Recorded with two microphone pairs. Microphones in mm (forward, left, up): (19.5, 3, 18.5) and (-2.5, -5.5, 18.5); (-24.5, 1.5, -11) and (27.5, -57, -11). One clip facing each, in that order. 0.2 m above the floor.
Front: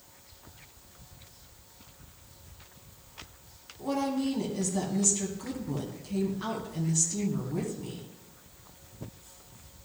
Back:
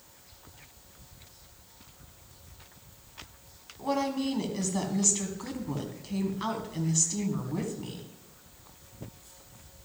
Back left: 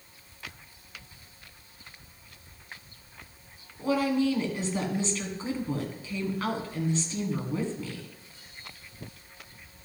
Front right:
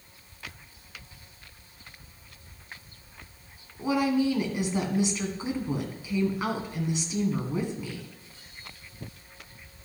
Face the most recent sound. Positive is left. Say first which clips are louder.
# even, front right 1 dB
turn(degrees=-120)